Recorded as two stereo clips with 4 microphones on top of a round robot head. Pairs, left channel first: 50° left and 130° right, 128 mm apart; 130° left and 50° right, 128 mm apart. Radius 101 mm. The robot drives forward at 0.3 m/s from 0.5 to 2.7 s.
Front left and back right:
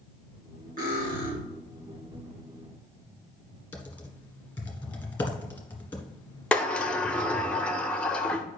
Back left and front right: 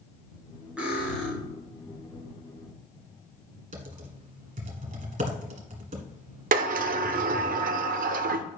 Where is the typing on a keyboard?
25° right, 1.4 m.